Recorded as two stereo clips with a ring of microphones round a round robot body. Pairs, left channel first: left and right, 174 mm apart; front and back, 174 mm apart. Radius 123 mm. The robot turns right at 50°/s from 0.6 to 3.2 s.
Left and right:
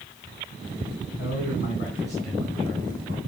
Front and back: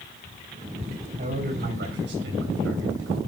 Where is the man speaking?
120° left, 9 m; by 3.2 s 135° right, 9 m.